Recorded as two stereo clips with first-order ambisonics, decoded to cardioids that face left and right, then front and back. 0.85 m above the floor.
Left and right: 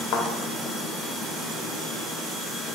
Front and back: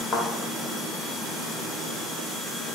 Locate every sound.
0.1 s a thud: 70° left, 0.7 m